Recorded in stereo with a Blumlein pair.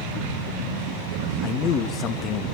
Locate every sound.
1.4 s a man speaking: 30° left, 1.0 m